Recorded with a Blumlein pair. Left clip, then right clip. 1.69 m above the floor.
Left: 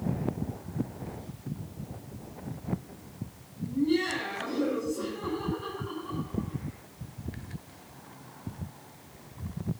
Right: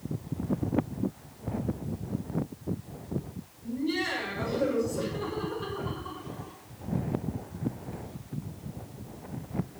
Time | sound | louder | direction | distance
3.6 | laughter | left 2 dB | 20° right | 8 m